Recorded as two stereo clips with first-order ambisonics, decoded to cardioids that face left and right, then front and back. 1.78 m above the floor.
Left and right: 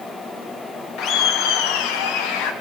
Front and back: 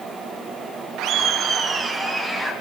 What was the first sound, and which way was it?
Laughter, 140° left.